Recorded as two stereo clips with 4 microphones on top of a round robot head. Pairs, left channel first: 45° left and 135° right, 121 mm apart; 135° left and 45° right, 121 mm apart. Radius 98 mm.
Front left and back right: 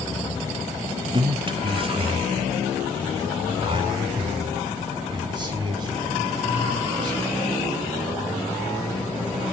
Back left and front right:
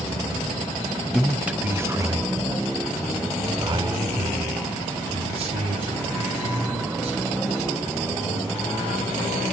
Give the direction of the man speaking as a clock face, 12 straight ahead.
5 o'clock.